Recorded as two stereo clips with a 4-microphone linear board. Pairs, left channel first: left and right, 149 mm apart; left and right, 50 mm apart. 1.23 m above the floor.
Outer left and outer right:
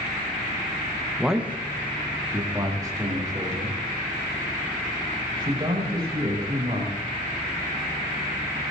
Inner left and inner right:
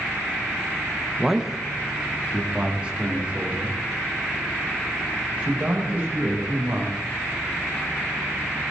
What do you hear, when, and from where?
1.2 s a man speaking: centre (ahead or behind), 1.1 m; by 6.9 s 30° right (ahead or behind), 8.5 m